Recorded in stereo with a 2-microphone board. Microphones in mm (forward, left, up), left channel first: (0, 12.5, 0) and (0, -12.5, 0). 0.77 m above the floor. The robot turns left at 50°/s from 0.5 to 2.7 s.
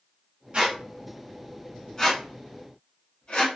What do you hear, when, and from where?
0.5 s a squeak: 50° right (ahead or behind), 1.4 m; by 3.5 s 55° left (ahead or behind), 1.4 m